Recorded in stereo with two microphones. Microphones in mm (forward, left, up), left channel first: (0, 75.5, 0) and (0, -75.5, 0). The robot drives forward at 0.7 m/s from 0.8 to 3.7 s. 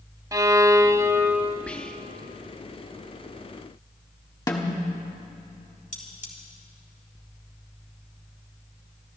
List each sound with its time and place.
0.3 s a violin: 20° right (ahead or behind), 0.5 m; by 1.6 s 15° right (ahead or behind), 0.9 m
1.7 s whispering: 10° left (ahead or behind), 0.7 m; by 2.3 s 5° left (ahead or behind), 1.0 m
4.5 s a snare drum: 20° left (ahead or behind), 1.4 m
5.9 s cutlery clinking: 60° left (ahead or behind), 3 m